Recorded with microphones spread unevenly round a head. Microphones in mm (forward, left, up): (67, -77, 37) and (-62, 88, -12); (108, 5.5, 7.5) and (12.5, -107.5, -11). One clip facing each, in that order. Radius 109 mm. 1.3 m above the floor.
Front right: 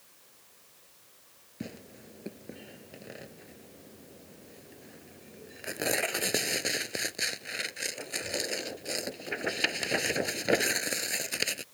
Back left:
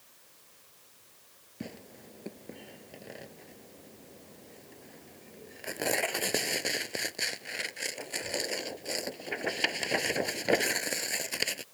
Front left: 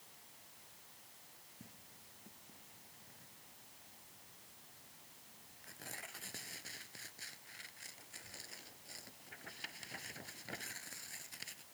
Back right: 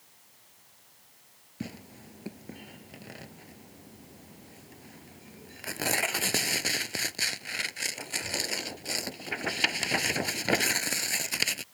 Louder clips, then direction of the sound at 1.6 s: Front right 1 dB, back right 22 dB; 135° right.